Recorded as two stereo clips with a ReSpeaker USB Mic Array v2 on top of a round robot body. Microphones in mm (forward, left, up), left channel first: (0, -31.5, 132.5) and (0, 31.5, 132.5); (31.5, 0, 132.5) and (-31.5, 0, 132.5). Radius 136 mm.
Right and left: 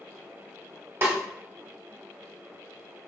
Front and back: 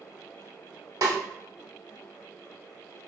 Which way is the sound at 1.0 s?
145° left.